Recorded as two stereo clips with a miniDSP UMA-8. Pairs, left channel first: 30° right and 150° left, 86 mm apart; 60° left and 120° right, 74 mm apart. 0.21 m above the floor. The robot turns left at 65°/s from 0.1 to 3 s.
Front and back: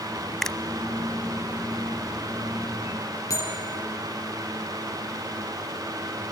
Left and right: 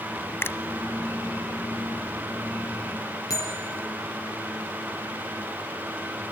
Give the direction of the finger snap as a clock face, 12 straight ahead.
10 o'clock.